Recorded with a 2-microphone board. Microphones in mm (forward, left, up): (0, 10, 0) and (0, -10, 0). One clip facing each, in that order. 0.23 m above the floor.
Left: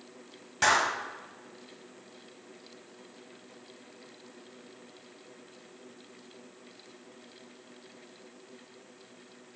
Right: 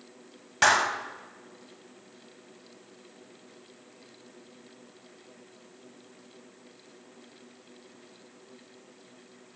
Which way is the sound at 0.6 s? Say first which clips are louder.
Right 3 dB; 25° right (ahead or behind).